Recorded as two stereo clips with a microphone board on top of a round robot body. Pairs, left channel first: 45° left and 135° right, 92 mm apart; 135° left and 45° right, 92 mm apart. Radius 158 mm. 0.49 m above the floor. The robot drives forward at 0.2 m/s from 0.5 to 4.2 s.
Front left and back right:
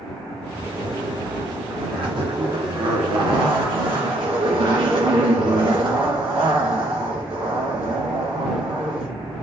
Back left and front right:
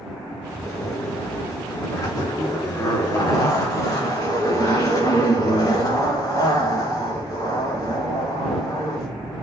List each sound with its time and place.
0.6 s a zipper: 170° right, 2 m